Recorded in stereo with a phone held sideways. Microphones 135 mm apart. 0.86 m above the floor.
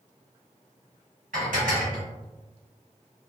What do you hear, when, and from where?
1.3 s dishes clattering: 85° right, 1.3 m